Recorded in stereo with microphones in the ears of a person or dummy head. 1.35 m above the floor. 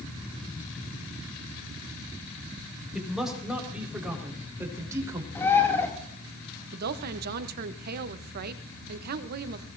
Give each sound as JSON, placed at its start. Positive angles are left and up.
{"t": 2.9, "sound": "a man speaking", "side_deg": 0, "distance_m": 4.5}
{"t": 5.3, "sound": "a bird", "side_deg": 15, "distance_m": 2.5}
{"t": 6.7, "sound": "a woman speaking", "side_deg": -55, "distance_m": 0.8}